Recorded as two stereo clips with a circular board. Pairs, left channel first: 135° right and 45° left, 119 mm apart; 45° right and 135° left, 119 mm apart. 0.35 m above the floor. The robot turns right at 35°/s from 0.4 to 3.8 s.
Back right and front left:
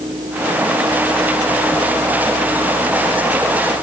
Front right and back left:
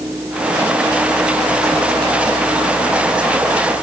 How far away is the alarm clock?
No alarm clock in this recording.